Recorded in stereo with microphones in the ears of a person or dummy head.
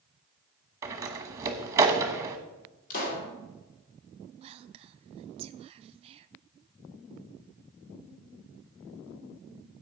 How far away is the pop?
About 2.5 m.